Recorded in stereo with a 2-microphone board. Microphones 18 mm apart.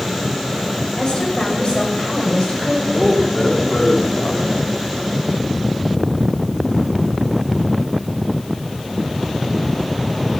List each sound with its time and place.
1.0 s a woman speaking: 50° left (ahead or behind), 5.5 m; by 2.8 s 70° left (ahead or behind), 7 m
2.9 s a man speaking: 75° left (ahead or behind), 3.5 m